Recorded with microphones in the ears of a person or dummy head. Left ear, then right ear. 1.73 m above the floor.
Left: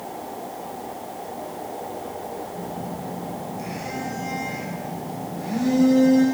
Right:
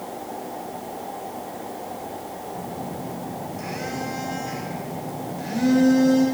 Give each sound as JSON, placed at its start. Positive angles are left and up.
{"t": 2.5, "sound": "a phone buzzing", "side_deg": -65, "distance_m": 3.0}